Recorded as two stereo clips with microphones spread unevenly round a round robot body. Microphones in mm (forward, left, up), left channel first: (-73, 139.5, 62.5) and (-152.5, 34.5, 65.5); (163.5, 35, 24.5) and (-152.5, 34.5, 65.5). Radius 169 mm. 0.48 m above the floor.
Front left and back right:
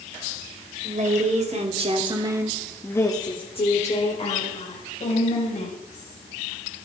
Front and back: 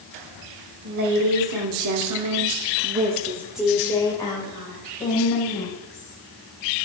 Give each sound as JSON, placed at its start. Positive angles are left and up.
{"t": 0.8, "sound": "a woman speaking", "azimuth_deg": -145, "distance_m": 2.5}